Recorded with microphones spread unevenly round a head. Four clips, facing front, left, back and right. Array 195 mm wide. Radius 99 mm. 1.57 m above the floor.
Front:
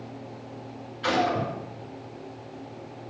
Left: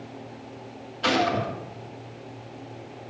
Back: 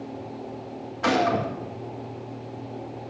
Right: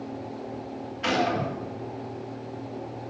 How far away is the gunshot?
About 1.7 m.